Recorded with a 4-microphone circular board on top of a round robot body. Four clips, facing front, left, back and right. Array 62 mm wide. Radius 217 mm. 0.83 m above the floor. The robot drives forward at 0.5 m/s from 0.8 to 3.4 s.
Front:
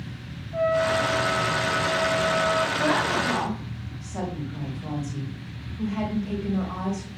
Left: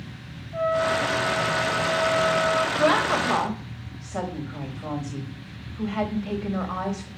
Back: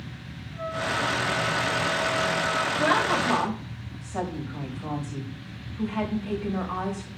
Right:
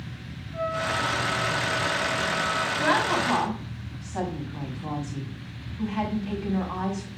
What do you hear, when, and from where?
0.5 s a trumpet: 40° left, 1.7 m; by 2.7 s 70° left, 1.1 m
2.8 s a woman speaking: 110° left, 4.5 m; by 7.1 s 115° left, 4.5 m